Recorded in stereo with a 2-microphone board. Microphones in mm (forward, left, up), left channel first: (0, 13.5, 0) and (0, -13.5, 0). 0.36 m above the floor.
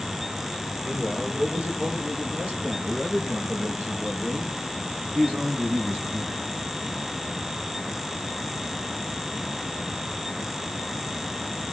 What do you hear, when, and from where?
0.8 s a man speaking: 55° right (ahead or behind), 8 m; by 6.4 s 65° right (ahead or behind), 4.5 m